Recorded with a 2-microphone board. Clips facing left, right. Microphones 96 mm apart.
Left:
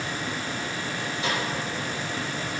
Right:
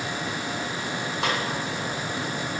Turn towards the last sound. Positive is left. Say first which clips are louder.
# right 2 dB
turn(degrees=-65)  # may be behind; listen again after turning